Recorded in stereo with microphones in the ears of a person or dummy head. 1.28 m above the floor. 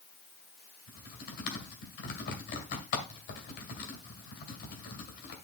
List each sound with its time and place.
0.9 s typing on a keyboard: 55° left (ahead or behind), 2 m